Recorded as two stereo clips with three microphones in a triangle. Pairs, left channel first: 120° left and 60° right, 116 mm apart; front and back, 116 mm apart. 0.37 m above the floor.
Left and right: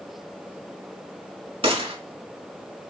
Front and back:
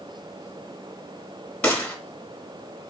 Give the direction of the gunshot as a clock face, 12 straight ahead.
3 o'clock.